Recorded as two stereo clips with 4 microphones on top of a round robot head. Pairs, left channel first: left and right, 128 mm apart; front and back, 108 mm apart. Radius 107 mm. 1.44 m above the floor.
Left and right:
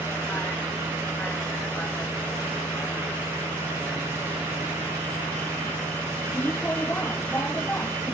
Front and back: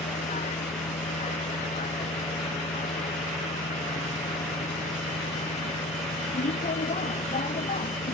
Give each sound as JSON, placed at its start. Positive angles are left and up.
{"t": 0.0, "sound": "a vehicle", "azimuth_deg": 15}